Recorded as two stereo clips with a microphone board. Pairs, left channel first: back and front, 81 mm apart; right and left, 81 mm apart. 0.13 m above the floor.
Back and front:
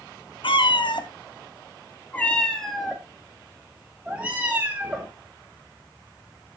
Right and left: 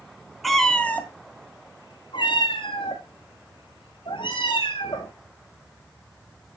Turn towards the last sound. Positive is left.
turn(degrees=-70)